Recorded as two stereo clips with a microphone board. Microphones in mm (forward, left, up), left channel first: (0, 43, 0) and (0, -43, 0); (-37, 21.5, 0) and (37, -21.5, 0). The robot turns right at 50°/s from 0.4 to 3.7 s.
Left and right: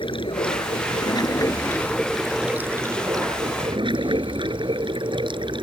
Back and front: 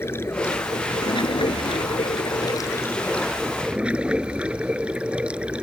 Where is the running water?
90° left; by 5.6 s 105° right.